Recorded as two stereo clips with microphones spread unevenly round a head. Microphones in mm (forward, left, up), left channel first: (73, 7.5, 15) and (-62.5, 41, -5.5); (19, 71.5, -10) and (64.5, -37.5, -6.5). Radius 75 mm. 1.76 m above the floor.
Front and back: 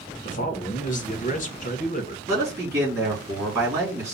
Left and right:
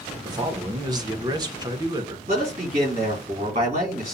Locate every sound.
0.2 s a man speaking: 20° right, 1.1 m
2.3 s a man speaking: 120° right, 3.5 m